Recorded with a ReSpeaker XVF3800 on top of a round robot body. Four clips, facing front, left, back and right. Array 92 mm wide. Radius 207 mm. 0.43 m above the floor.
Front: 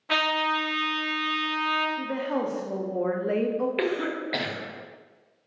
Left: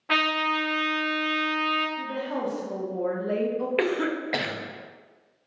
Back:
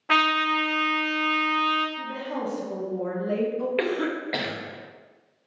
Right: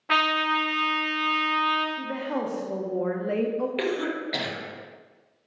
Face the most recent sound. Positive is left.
turn(degrees=95)